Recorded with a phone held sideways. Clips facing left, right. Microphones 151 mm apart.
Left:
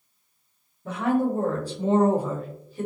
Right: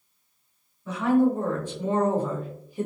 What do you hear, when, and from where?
0.8 s a woman speaking: 55° left (ahead or behind), 1.1 m; by 2.9 s 20° right (ahead or behind), 0.8 m